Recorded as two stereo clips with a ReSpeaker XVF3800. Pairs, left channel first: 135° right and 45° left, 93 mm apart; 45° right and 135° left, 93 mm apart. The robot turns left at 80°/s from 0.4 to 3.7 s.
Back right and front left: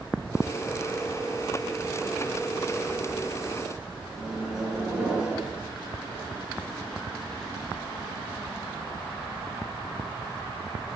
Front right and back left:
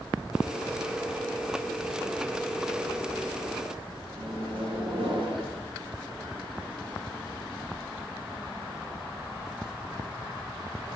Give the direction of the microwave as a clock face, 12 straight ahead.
8 o'clock.